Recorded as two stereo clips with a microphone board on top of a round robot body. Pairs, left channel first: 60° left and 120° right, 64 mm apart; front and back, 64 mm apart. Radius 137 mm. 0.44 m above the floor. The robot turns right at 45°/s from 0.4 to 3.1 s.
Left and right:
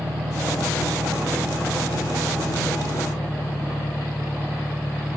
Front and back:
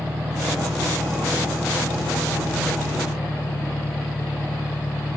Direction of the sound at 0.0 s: 125° right.